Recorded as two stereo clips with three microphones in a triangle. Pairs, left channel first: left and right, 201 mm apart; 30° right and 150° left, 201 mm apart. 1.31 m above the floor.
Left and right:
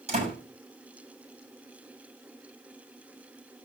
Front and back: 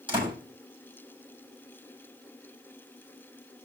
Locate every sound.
0.1 s a door slam: 145° right, 6.5 m